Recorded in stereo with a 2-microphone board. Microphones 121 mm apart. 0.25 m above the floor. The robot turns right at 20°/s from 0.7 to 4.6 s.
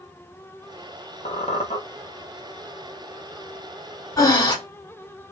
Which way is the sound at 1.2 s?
75° left (ahead or behind).